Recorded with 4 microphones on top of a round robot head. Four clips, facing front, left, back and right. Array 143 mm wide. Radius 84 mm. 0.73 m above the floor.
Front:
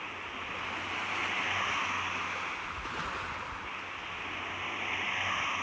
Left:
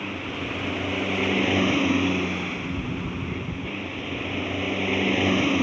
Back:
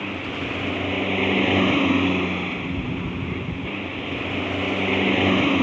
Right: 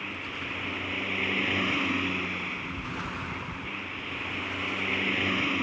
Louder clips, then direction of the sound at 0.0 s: Left 7 dB, back 12 dB; 160° left.